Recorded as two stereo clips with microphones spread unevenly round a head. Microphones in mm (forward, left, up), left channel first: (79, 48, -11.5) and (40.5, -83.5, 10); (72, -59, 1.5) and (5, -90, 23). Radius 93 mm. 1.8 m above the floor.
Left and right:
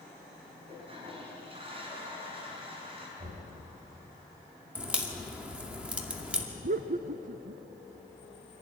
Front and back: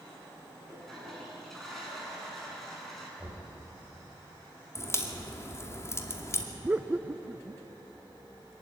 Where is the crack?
30° right, 2.5 m.